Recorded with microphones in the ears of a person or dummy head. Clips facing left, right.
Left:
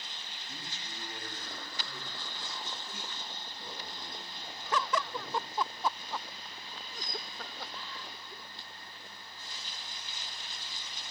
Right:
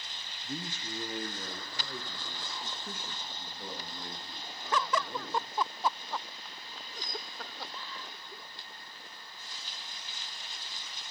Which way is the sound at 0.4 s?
40° right (ahead or behind).